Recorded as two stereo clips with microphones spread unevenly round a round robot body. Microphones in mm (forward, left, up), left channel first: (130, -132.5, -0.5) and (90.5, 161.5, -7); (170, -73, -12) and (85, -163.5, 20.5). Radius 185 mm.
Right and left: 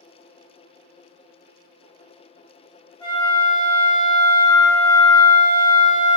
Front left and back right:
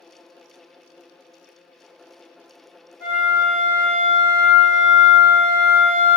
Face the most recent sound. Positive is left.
turn(degrees=-160)